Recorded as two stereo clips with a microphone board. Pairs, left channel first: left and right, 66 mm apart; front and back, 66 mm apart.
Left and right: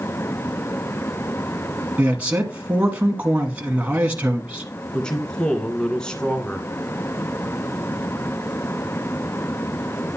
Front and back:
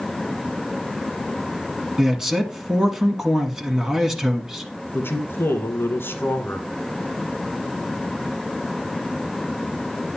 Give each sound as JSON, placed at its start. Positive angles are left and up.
{"t": 2.0, "sound": "a man speaking", "azimuth_deg": -110, "distance_m": 1.2}
{"t": 4.9, "sound": "a man speaking", "azimuth_deg": 20, "distance_m": 1.5}